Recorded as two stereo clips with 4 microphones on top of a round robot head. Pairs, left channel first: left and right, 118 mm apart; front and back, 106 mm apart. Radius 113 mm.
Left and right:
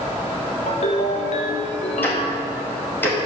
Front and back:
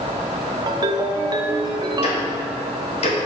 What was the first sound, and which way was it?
A ringtone, 140° left.